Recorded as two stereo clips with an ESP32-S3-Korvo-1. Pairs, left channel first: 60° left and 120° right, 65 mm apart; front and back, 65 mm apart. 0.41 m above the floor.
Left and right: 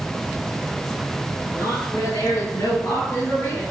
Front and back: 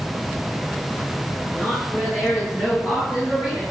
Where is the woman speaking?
45° left, 7.5 m; by 3.6 s 50° left, 5.5 m.